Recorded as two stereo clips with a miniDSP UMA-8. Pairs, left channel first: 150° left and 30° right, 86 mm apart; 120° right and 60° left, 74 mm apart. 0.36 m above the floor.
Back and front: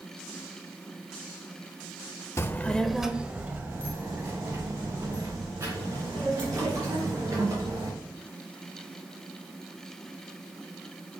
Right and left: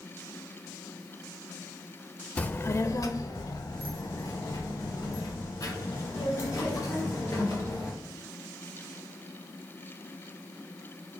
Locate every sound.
2.4 s a child speaking: straight behind, 0.5 m; by 7.9 s 80° right, 4 m